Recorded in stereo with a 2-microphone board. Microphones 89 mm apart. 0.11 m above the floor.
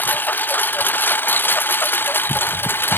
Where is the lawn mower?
20° left (ahead or behind); by 3.0 s 25° left (ahead or behind).